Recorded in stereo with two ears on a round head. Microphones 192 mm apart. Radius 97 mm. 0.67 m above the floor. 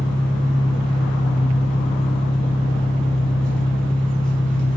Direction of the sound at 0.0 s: 5° left (ahead or behind).